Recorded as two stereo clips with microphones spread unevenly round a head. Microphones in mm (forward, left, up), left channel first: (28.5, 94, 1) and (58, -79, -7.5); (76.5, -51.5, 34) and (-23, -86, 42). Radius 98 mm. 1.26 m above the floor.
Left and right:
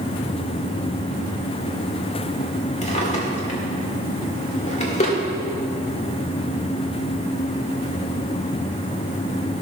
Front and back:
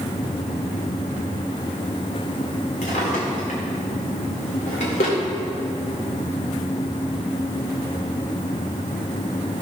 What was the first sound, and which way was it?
A drawer, 50° left.